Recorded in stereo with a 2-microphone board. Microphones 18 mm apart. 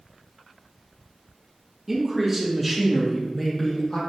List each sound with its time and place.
1.9 s a man speaking: 5° right (ahead or behind), 3 m; by 4.0 s 40° left (ahead or behind), 3.5 m